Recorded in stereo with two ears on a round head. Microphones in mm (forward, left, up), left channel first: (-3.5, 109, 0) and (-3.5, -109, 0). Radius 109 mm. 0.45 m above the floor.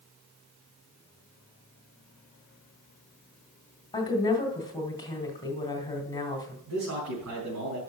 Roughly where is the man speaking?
Right.